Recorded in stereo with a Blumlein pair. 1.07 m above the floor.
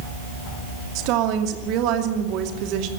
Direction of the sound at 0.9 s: 40° right.